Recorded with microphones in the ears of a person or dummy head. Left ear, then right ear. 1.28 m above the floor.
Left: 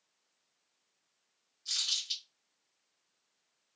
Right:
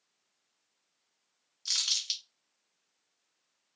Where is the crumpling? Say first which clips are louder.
Right 3 dB; 45° right (ahead or behind), 0.6 m.